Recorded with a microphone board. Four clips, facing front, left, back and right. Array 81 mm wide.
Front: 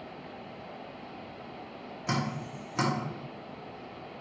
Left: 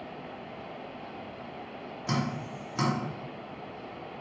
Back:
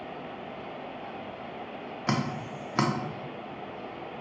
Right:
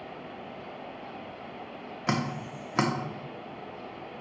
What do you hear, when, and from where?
2.1 s dripping: 130° right, 1.0 m